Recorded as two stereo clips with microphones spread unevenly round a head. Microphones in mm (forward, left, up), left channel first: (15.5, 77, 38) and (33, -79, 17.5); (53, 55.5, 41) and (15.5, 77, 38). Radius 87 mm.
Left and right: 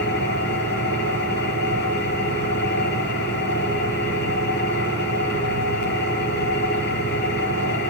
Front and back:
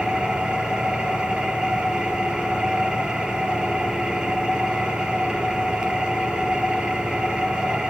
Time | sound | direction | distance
0.0 | an engine running | 80° left | 8 m